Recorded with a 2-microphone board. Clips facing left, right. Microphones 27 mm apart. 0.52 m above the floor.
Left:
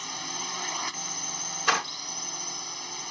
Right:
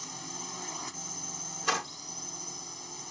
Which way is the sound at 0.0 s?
55° left (ahead or behind).